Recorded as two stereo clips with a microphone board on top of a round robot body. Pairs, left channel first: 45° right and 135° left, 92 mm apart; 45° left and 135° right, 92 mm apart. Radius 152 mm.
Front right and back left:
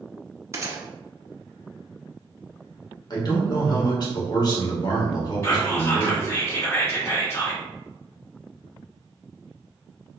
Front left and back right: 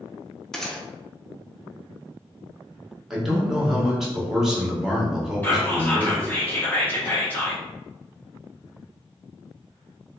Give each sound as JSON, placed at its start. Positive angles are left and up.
{"t": 0.5, "sound": "a gunshot", "azimuth_deg": 125, "distance_m": 0.9}
{"t": 3.1, "sound": "a man speaking", "azimuth_deg": -50, "distance_m": 1.5}
{"t": 5.4, "sound": "whispering", "azimuth_deg": -10, "distance_m": 1.3}